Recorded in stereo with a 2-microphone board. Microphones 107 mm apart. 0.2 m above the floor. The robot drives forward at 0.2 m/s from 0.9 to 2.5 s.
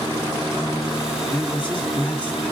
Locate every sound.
1.3 s a man speaking: 10° left (ahead or behind), 1.3 m